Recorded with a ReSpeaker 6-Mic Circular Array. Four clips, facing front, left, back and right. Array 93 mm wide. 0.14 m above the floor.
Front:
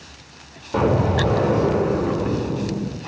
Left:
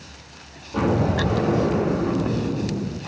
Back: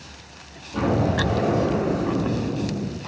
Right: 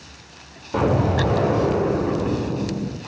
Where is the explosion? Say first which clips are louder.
Right 1 dB, front 3 dB; 45° right, 4 m.